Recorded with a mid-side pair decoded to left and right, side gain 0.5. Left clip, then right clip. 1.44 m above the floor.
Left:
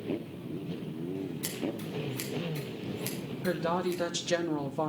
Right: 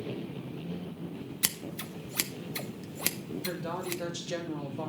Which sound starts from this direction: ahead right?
Scissors, at 1.4 s.